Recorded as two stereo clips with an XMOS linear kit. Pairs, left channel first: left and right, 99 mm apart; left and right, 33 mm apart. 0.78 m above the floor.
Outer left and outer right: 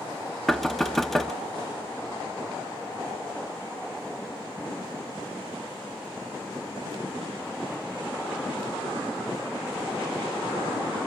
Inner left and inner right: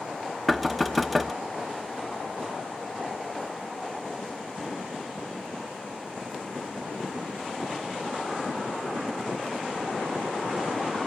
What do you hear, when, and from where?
0.5 s knocking: centre (ahead or behind), 0.8 m